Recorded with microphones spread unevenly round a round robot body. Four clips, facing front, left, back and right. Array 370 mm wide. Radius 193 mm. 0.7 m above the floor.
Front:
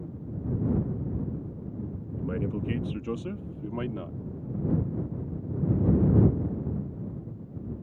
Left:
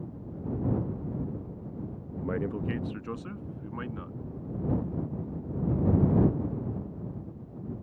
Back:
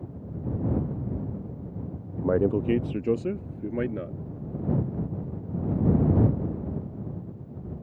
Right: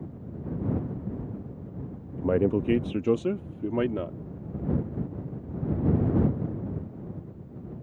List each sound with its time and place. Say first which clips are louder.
2.2 s a man speaking: right 8 dB, back 9 dB; 125° right; by 4.2 s 115° right